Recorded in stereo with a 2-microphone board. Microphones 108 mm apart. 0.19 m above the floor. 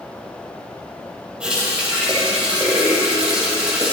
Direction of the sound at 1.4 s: 10° right (ahead or behind).